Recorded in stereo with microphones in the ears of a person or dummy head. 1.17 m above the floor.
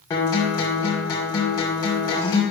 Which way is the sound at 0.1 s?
20° left (ahead or behind).